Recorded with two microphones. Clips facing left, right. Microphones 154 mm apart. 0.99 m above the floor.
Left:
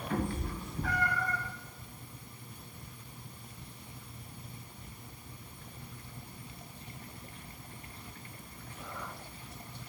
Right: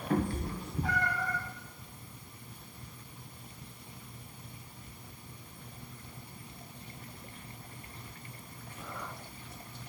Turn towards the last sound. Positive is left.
turn(degrees=-20)  # may be behind; listen again after turning